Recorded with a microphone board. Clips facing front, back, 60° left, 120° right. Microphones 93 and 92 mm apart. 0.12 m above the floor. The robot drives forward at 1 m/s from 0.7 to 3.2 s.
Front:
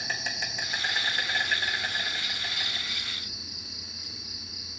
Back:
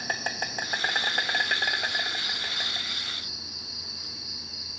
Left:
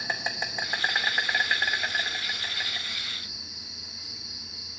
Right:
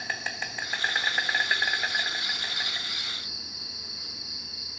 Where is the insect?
135° left, 1.1 m; by 4.8 s 165° left, 3.5 m.